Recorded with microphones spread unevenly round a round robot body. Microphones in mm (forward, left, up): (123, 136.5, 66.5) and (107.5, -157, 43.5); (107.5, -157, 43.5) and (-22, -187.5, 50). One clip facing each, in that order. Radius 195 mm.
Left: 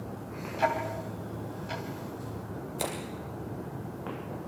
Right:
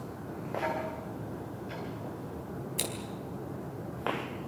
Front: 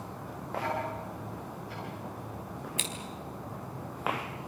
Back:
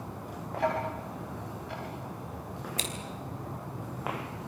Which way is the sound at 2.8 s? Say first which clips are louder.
Left 5 dB, back 4 dB; 115° right.